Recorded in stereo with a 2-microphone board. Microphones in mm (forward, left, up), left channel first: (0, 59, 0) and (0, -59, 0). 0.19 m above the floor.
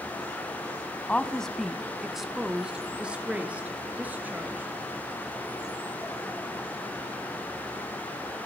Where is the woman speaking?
10° left (ahead or behind), 1.1 m; by 4.7 s 15° right (ahead or behind), 3 m.